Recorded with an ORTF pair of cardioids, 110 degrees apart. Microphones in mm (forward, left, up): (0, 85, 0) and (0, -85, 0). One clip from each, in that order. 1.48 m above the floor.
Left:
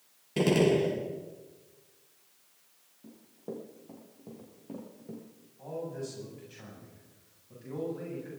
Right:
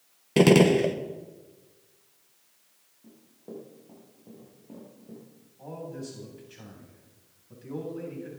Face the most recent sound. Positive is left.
turn(degrees=-10)